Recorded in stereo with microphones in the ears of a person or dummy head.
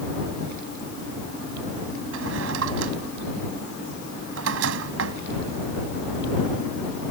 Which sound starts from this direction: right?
A drawer, at 2.1 s.